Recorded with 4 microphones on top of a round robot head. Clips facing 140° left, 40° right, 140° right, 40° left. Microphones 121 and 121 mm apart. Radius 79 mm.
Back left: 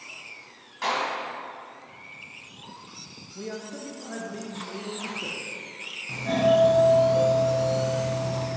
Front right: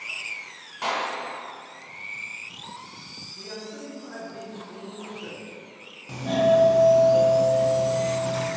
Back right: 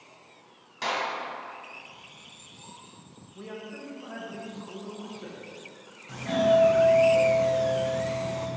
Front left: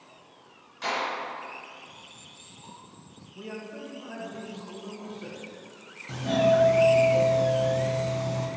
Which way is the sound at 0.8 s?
115° right.